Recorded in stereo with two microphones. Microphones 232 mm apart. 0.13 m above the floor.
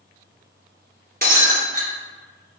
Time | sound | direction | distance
1.2 | breaking glass | 40° right (ahead or behind) | 1.2 m